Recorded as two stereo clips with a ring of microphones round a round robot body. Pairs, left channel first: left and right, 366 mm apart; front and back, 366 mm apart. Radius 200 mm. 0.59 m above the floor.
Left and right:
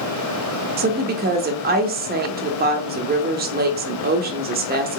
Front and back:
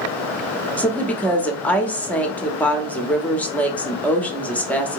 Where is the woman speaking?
80° right, 0.7 m.